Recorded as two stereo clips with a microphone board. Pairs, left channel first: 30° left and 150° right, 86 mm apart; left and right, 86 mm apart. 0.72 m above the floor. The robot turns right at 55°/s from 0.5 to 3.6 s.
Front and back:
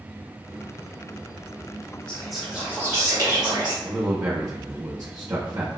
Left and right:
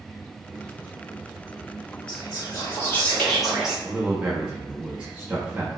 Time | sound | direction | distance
2.1 | whispering | 105° left | 1.4 m
3.9 | a man speaking | 160° right | 0.6 m